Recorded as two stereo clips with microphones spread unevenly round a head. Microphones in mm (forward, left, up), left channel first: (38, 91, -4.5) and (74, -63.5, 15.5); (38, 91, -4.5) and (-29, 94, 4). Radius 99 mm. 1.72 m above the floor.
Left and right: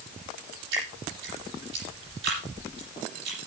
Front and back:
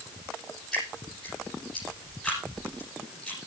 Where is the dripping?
90° right, 9 m.